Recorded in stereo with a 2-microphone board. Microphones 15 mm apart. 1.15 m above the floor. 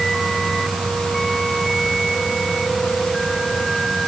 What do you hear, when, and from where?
Only background noise.